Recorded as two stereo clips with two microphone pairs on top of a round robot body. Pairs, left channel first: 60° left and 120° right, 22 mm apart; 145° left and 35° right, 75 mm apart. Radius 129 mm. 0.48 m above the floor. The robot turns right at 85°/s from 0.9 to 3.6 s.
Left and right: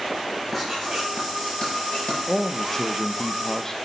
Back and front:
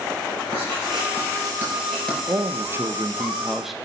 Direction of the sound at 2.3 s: 15° right.